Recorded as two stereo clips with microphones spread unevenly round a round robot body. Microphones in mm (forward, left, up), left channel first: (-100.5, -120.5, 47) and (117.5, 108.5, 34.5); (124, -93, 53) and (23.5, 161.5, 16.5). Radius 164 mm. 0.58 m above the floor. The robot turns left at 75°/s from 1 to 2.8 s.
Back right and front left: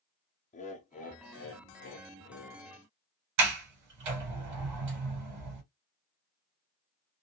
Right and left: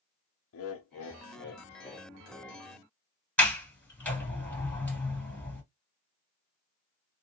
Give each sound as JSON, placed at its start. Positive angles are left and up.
{"t": 0.5, "sound": "laughter", "azimuth_deg": -75, "distance_m": 0.7}
{"t": 3.4, "sound": "a sliding door", "azimuth_deg": 15, "distance_m": 2.0}